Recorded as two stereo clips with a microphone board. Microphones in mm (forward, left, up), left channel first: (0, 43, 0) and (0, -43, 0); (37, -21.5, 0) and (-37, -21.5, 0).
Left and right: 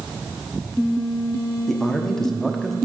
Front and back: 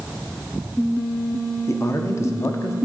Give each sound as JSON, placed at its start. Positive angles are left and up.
{"t": 1.7, "sound": "a man speaking", "azimuth_deg": 10, "distance_m": 0.9}